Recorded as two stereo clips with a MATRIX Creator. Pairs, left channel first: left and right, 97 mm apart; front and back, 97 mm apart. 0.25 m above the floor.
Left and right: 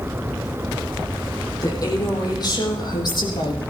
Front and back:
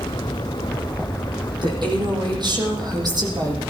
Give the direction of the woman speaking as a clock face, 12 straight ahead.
7 o'clock.